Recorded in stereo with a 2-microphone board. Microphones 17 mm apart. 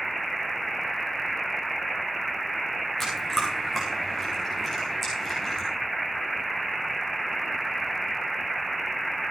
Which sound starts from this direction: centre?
Chewing, at 3.0 s.